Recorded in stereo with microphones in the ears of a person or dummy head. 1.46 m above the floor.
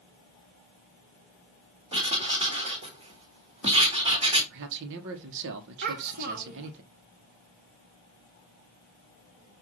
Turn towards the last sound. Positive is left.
turn(degrees=-50)  # may be behind; listen again after turning